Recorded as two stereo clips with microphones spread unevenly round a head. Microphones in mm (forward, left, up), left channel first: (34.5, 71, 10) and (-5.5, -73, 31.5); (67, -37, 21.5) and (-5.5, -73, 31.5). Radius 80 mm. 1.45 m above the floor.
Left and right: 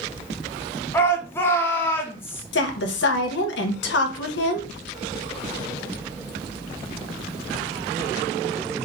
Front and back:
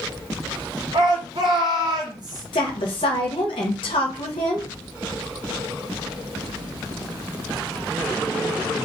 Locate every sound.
0.9 s a shout: 150° left, 0.9 m
2.5 s a woman speaking: 70° left, 1.0 m